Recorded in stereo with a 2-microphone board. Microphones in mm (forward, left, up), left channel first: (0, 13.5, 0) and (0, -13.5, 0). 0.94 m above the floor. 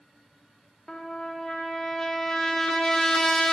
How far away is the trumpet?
About 0.6 m.